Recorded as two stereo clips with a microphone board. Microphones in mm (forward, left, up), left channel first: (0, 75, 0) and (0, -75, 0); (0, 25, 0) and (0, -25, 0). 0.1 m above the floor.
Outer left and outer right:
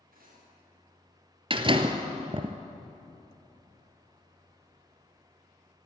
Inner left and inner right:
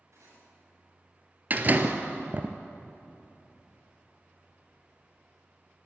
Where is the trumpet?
I don't hear a trumpet.